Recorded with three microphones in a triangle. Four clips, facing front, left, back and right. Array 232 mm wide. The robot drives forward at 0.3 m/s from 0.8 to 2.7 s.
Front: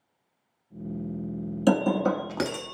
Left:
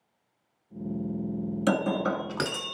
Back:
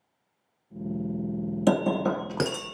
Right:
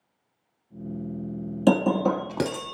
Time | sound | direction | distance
1.7 | breaking glass | 105° right | 0.9 m